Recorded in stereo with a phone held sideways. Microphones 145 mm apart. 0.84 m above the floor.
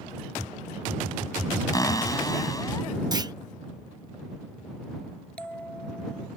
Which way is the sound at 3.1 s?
30° right (ahead or behind).